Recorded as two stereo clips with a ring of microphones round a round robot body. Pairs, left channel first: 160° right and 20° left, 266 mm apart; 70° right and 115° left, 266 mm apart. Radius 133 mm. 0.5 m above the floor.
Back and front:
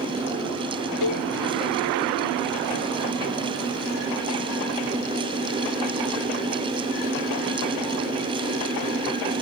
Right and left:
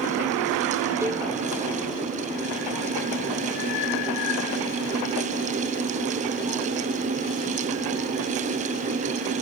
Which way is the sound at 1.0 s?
165° right.